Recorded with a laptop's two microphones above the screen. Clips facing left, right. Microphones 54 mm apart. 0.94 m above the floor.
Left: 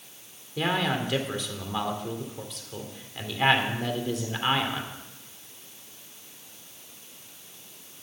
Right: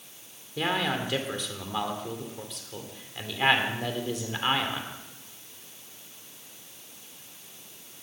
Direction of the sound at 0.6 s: Centre (ahead or behind).